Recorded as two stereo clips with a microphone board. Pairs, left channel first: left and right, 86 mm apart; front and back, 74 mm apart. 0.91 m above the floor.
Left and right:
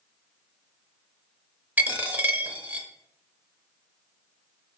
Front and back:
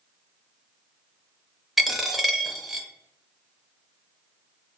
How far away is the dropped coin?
About 0.6 m.